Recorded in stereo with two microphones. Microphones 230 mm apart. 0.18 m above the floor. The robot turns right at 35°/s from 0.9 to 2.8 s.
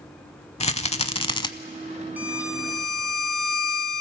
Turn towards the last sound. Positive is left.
turn(degrees=0)  # may be behind; listen again after turning